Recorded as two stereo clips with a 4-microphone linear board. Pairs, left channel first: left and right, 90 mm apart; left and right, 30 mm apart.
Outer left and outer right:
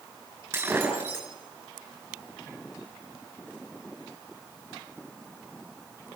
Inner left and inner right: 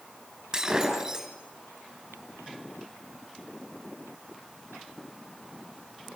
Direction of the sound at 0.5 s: 25° right (ahead or behind).